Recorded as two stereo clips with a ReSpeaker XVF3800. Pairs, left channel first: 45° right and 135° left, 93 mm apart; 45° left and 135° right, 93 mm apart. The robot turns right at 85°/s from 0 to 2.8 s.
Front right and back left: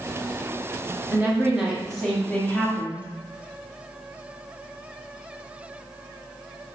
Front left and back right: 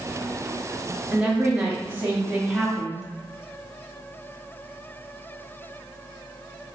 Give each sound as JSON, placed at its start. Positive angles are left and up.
{"t": 1.1, "sound": "a woman speaking", "azimuth_deg": 160, "distance_m": 0.8}